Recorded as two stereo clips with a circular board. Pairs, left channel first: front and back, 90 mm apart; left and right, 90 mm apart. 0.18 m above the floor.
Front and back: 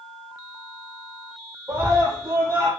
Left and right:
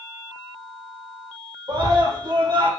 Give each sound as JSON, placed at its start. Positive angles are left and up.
{"t": 1.7, "sound": "a scream", "azimuth_deg": -125, "distance_m": 6.0}